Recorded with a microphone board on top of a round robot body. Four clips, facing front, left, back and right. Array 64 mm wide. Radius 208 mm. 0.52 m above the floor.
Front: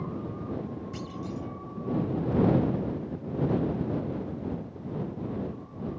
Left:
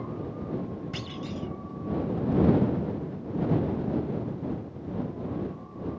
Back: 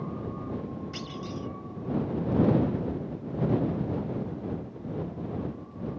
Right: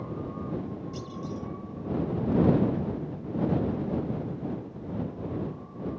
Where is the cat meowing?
No cat meowing in this recording.